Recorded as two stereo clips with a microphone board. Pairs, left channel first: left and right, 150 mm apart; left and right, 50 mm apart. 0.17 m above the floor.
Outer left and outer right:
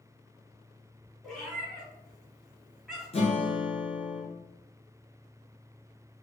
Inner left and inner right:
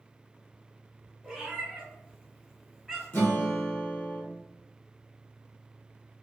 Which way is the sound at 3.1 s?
40° left (ahead or behind).